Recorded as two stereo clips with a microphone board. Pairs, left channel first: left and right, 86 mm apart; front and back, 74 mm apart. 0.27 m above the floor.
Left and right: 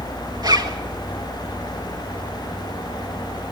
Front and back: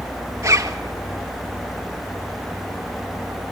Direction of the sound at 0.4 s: 130° right.